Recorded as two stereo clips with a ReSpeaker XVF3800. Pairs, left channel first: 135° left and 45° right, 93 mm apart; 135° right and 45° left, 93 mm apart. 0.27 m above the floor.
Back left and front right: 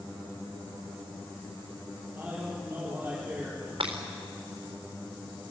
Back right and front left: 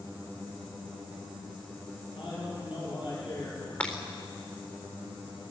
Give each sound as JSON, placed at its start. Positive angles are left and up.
{"t": 2.1, "sound": "a man speaking", "azimuth_deg": -110, "distance_m": 10.0}
{"t": 3.8, "sound": "breaking glass", "azimuth_deg": -60, "distance_m": 4.0}